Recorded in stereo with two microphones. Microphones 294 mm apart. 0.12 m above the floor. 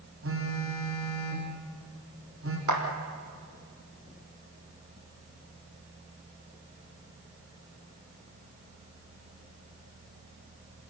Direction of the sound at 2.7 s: 75° right (ahead or behind).